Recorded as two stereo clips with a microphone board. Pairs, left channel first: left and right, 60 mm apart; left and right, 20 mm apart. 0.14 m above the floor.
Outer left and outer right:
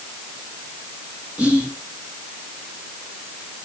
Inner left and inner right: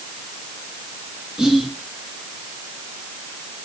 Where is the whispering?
20° right (ahead or behind), 2 m.